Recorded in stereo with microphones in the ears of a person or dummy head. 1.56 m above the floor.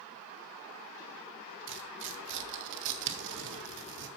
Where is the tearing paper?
65° right (ahead or behind), 0.8 m.